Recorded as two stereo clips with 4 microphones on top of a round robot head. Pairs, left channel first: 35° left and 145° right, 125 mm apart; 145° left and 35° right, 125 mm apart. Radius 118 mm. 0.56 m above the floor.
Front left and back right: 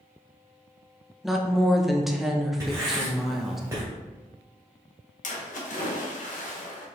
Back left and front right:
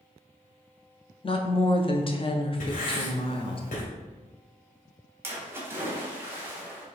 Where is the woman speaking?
125° left, 0.8 m.